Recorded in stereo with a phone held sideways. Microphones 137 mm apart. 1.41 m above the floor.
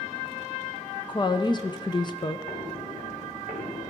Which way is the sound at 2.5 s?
50° left (ahead or behind).